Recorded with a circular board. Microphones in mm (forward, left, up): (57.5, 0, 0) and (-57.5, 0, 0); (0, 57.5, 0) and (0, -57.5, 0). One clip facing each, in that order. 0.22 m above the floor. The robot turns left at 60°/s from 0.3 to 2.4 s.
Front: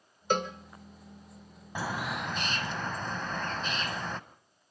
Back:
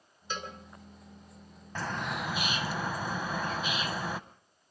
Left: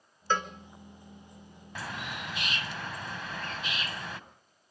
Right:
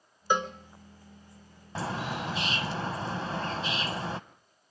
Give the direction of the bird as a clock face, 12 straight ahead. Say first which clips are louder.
Front 1 dB, right 6 dB; 2 o'clock.